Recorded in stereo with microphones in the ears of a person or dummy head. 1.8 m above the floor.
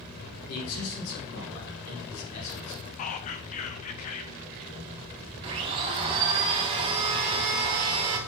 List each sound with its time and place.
0.5 s a man speaking: 90° left, 3 m; by 2.9 s 65° left (ahead or behind), 3 m
3.0 s whispering: 40° left (ahead or behind), 0.7 m
5.4 s a blender: 30° right (ahead or behind), 1.1 m